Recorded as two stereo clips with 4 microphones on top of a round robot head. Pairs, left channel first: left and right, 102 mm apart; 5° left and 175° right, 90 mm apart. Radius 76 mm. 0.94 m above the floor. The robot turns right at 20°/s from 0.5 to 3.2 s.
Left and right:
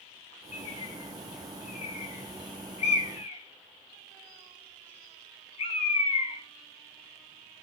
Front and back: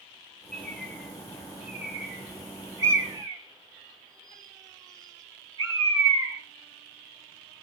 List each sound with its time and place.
0.5 s a bird: 85° left, 3.5 m; by 6.4 s 140° left, 3.5 m